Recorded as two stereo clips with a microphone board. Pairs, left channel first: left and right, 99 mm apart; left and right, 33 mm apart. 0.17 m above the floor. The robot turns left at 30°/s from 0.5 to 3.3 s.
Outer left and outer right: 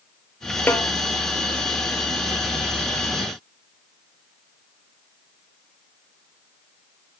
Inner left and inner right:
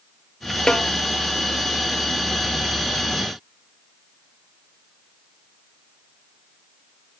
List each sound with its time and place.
0.7 s a snare drum: 20° left (ahead or behind), 0.5 m; by 0.9 s 30° left (ahead or behind), 0.5 m